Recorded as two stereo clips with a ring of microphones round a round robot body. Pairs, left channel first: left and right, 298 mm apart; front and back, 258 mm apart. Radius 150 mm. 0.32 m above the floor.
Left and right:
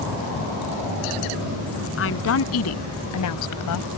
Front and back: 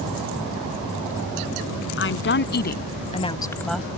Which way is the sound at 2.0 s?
40° left.